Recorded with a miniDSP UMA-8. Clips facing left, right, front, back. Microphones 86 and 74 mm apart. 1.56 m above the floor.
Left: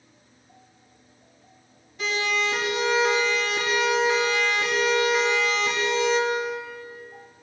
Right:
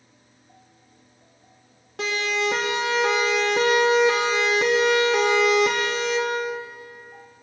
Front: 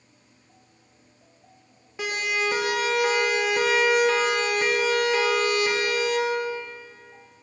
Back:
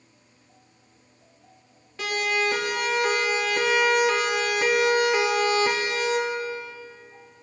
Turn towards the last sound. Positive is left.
turn(degrees=-125)